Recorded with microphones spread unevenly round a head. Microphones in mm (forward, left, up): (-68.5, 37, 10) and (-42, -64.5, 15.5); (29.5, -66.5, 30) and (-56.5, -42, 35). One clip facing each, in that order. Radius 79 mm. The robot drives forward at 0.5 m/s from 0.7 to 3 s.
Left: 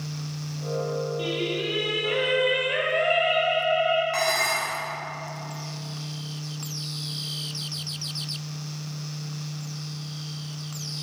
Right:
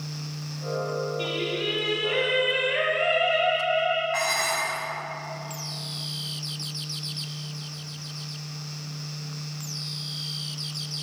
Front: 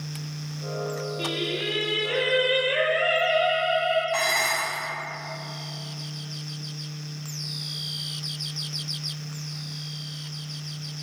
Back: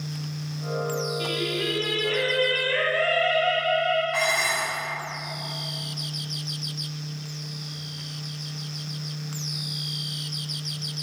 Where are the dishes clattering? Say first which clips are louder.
Left 1 dB, even; 55° left, 1.9 m.